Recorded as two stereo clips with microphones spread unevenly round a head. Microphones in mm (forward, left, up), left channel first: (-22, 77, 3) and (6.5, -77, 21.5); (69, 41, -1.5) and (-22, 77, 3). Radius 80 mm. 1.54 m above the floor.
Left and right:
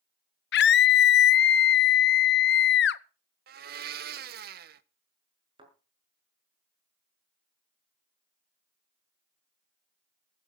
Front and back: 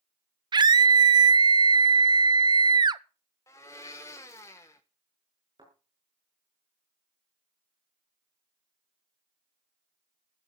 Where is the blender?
95° right, 0.8 m.